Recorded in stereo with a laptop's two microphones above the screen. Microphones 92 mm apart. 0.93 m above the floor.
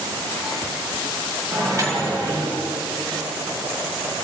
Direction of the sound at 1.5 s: 40° right (ahead or behind).